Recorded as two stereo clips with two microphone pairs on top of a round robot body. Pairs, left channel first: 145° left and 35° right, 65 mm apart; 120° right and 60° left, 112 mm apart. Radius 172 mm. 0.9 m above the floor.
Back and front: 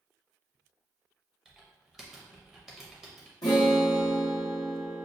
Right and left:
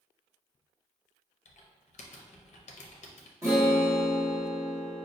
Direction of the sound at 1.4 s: 115° right.